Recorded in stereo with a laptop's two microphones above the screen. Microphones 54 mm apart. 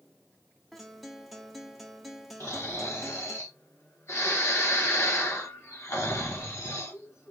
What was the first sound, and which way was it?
A guitar, centre (ahead or behind).